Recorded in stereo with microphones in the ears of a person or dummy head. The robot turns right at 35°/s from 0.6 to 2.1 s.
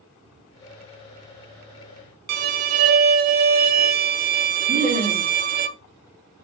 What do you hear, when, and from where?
2.3 s a violin: 60° right (ahead or behind), 0.5 m
4.7 s laughter: 25° right (ahead or behind), 1.8 m